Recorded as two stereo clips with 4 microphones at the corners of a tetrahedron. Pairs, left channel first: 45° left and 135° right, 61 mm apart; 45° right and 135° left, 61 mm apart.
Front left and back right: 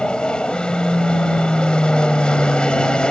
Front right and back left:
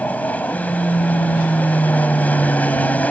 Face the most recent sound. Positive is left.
turn(degrees=-15)